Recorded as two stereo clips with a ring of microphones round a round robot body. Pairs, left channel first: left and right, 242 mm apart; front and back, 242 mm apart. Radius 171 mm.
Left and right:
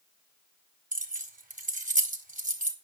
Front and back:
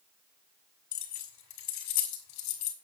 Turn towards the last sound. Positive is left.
turn(degrees=-30)